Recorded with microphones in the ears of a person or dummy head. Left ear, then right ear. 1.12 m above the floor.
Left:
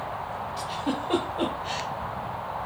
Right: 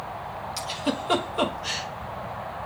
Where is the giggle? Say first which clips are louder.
Right 2 dB; 70° right (ahead or behind), 0.9 m.